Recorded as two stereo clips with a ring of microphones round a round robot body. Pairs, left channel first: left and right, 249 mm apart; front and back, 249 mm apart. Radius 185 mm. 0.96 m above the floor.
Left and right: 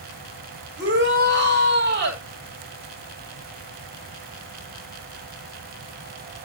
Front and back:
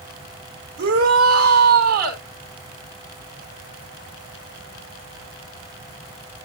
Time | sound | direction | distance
0.8 | a shout | 145° right | 4.5 m